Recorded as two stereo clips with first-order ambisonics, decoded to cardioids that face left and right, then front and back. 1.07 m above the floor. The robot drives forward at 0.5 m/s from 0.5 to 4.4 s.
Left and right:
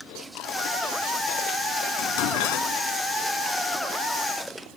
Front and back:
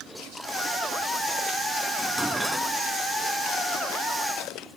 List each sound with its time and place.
2.0 s dishes clattering: 90° left; by 2.7 s 95° left